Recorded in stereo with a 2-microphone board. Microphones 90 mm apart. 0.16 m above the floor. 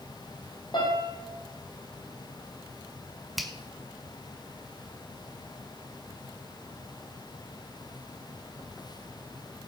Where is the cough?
No cough in this recording.